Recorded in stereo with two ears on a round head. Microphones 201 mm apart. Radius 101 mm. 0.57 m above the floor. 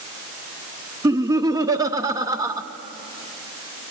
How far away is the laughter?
About 0.7 m.